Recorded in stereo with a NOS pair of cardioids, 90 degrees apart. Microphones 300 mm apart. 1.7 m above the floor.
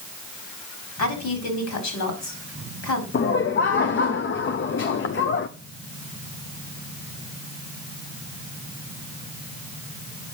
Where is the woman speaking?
65° left, 4.5 m.